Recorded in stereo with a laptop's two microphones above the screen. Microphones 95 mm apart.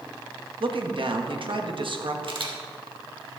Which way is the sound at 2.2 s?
65° right (ahead or behind).